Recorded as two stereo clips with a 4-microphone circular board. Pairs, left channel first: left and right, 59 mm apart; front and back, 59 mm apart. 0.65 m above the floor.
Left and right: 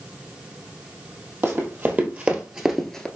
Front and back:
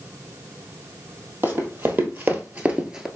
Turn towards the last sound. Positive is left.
turn(degrees=130)